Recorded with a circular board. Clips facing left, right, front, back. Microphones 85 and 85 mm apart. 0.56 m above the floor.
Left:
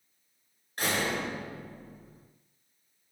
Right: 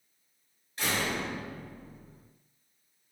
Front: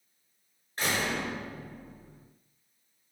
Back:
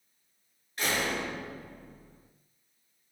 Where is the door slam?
55° left, 5.5 m.